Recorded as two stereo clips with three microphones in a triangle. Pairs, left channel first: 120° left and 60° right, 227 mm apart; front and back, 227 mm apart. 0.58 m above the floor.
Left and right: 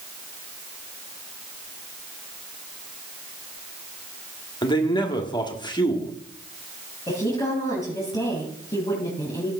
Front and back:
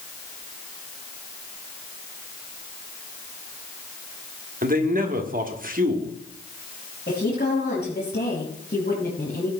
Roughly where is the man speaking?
Behind.